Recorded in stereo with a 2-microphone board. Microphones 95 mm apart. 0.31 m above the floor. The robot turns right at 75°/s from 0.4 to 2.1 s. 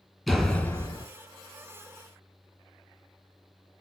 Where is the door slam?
5° left, 4.5 m; by 1.1 s 55° left, 4.5 m.